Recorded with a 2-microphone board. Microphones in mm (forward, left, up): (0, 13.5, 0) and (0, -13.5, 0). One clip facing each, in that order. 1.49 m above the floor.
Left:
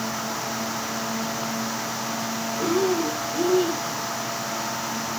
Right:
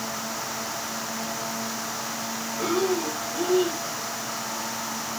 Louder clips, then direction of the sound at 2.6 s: Left 2 dB; centre (ahead or behind).